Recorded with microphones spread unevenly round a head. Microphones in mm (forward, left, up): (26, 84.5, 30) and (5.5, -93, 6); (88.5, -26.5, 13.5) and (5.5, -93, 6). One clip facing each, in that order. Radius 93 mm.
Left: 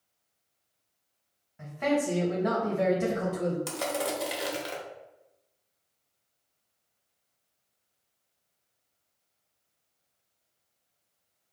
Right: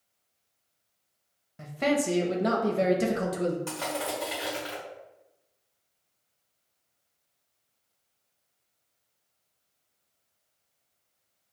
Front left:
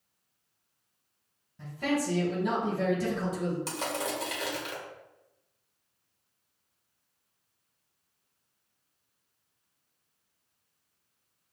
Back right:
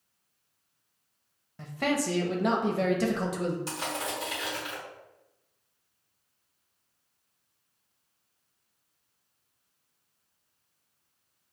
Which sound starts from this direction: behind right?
A man speaking, at 1.6 s.